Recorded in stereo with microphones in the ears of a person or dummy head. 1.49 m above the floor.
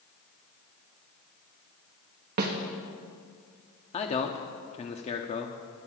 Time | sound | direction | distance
2.4 | a snare drum | 50° right (ahead or behind) | 1.1 m
3.9 | a man speaking | 35° left (ahead or behind) | 0.9 m